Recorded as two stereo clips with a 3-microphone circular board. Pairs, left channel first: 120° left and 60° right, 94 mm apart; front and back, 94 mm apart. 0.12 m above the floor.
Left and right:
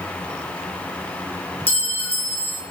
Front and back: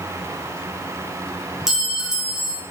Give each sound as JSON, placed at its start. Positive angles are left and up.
{"t": 1.7, "sound": "a clink", "azimuth_deg": 110, "distance_m": 0.6}